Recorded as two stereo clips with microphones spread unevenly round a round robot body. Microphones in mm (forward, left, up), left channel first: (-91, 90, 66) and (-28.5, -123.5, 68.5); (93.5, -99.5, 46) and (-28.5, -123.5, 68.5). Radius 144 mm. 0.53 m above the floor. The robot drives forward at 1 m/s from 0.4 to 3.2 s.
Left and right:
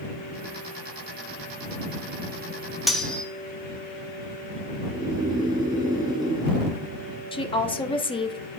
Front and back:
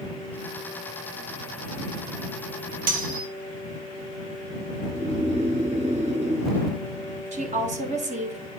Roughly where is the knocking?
I don't hear knocking.